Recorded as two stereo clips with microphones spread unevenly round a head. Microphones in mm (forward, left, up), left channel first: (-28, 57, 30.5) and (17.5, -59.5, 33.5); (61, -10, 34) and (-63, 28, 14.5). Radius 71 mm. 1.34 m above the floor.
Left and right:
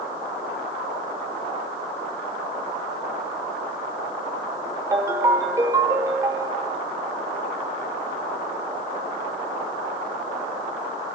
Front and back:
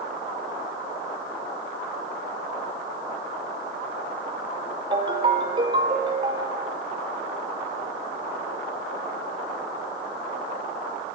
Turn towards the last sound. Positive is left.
turn(degrees=-135)